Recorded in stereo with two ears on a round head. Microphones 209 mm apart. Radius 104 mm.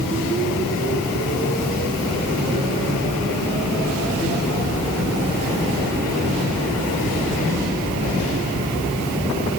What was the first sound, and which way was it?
Only background noise.